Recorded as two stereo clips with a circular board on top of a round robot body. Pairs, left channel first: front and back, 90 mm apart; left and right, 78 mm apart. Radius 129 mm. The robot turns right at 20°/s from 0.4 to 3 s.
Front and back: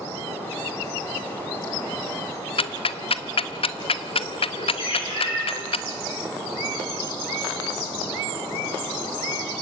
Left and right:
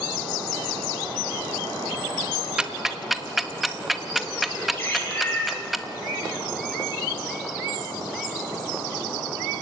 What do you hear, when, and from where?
2.6 s ticking: 10° right, 0.9 m; by 5.8 s straight ahead, 0.9 m
4.8 s a bird: 25° left, 9 m